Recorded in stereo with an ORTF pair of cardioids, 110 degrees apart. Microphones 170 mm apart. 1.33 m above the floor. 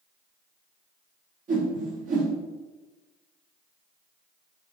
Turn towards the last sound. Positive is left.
turn(degrees=-50)